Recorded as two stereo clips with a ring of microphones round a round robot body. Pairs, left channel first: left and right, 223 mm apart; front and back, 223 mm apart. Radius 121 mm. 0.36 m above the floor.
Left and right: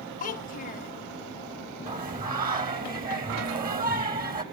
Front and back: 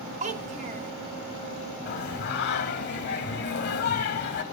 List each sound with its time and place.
0.2 s a child speaking: 130° left, 0.6 m
1.9 s singing: 40° right, 0.9 m